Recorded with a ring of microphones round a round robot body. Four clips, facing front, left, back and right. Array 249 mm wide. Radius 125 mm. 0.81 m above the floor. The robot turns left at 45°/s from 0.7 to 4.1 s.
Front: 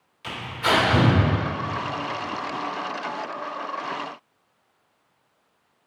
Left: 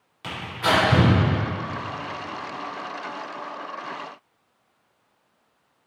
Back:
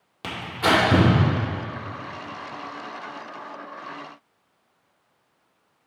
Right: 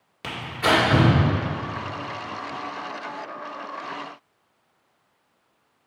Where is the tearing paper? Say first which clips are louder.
Right 1 dB, back 2 dB; 150° right, 2.5 m; by 1.1 s 170° right, 2.5 m.